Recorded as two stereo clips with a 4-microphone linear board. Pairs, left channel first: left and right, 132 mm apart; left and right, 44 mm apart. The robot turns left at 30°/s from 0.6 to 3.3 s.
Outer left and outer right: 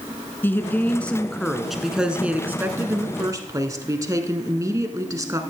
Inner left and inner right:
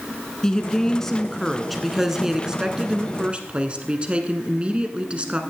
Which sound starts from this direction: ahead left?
A woman speaking, at 0.4 s.